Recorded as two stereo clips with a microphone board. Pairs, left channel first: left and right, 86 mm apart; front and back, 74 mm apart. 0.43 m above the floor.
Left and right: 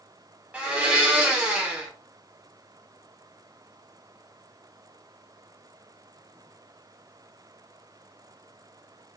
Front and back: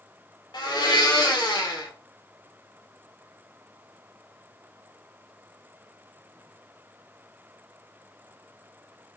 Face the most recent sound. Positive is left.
turn(degrees=-15)